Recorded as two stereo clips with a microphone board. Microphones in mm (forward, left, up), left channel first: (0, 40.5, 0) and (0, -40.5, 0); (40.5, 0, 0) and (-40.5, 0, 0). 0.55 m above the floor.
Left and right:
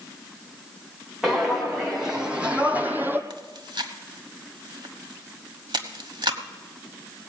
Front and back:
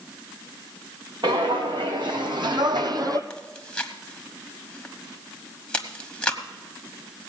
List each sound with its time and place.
1.2 s footsteps: 175° right, 2.5 m; by 3.2 s 150° right, 1.1 m
3.3 s chewing: 75° right, 1.1 m